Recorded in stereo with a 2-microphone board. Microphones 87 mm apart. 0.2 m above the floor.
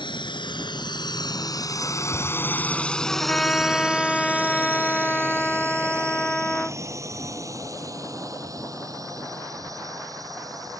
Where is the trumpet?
10° left (ahead or behind).